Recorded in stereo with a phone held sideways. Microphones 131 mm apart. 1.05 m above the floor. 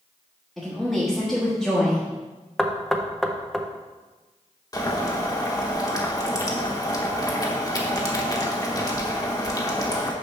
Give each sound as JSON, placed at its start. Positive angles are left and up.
{"t": 0.6, "sound": "a woman speaking", "side_deg": 0, "distance_m": 1.2}
{"t": 2.6, "sound": "knocking", "side_deg": 0, "distance_m": 0.6}
{"t": 4.7, "sound": "boiling", "side_deg": 30, "distance_m": 1.0}